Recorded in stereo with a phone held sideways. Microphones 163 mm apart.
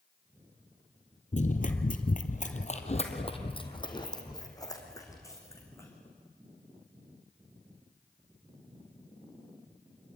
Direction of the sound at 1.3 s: 50° left (ahead or behind).